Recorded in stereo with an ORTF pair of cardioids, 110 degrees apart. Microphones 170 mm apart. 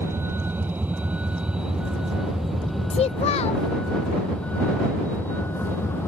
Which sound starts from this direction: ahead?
A vehicle, at 0.0 s.